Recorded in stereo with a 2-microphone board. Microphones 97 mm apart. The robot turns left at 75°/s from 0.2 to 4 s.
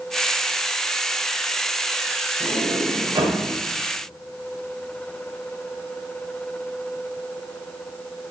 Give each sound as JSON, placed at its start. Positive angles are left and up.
{"t": 2.4, "sound": "a sliding door", "azimuth_deg": -65, "distance_m": 1.9}